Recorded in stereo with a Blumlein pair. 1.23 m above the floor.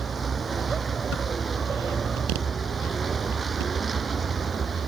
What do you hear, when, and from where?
0.0 s a vehicle: 15° right